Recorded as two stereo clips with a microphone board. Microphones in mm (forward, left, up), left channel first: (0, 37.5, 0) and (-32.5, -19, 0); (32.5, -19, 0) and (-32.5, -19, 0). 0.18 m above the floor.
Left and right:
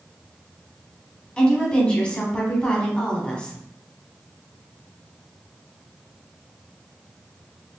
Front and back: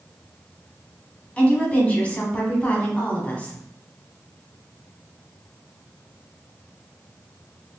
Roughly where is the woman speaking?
Ahead.